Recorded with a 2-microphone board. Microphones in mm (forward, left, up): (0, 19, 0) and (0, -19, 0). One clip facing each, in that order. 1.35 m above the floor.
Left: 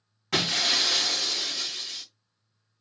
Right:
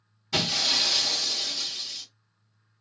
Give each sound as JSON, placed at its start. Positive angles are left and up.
{"t": 0.3, "sound": "breaking glass", "side_deg": 70, "distance_m": 1.6}